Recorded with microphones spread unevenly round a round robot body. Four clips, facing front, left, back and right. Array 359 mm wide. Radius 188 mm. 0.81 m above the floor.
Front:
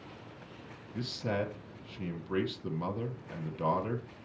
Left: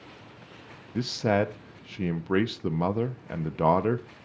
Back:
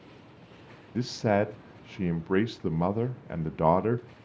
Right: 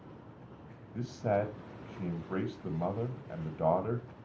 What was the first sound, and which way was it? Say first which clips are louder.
A man speaking: left 6 dB, back 8 dB; 125° left.